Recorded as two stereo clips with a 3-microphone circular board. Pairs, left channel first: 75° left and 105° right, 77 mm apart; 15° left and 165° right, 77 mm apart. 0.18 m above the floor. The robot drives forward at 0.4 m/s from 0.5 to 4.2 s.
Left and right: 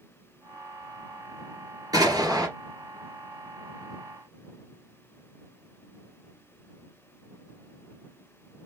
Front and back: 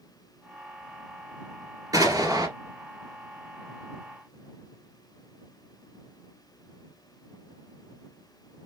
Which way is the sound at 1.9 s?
135° right.